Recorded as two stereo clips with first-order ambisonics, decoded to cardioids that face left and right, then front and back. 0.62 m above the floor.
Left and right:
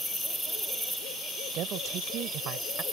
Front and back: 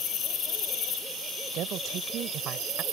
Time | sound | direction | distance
1.5 | a woman speaking | 135° right | ?